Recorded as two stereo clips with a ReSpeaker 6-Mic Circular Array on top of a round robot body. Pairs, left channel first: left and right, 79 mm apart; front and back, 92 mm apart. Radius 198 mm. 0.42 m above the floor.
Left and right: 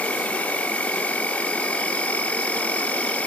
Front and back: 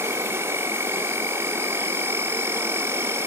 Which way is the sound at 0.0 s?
145° left.